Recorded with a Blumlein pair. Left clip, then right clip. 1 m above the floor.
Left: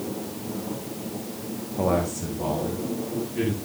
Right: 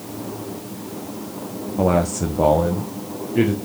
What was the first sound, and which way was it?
A man speaking, 15° right.